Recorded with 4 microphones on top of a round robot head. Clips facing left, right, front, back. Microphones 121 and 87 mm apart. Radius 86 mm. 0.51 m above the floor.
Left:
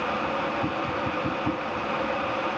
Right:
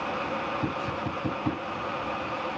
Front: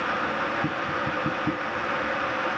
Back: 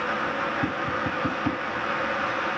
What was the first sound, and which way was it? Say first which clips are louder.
Tapping: left 3 dB, even; 160° right.